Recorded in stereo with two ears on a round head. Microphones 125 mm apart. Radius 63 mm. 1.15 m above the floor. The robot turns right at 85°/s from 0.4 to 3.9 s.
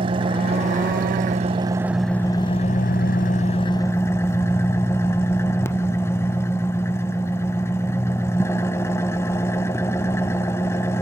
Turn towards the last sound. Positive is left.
turn(degrees=160)